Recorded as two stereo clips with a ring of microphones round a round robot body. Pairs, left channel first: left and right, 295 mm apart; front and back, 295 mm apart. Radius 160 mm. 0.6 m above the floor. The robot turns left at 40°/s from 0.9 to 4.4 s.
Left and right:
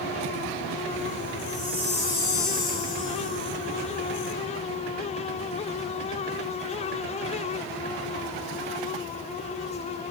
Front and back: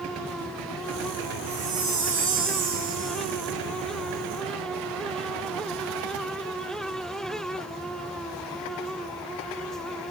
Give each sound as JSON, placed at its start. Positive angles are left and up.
{"t": 1.5, "sound": "a chime", "azimuth_deg": -165, "distance_m": 5.5}